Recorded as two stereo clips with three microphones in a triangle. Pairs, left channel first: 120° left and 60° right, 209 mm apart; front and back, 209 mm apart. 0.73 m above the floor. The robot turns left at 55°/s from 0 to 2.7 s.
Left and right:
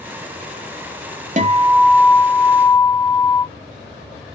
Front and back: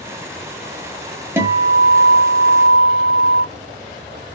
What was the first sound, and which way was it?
A guitar, 105° right.